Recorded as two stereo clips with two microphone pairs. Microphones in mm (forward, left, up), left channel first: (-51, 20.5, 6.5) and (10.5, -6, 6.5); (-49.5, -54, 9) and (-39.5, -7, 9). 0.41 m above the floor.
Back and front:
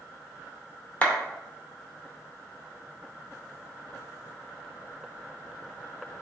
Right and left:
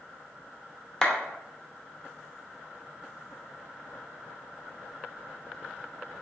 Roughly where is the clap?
Behind.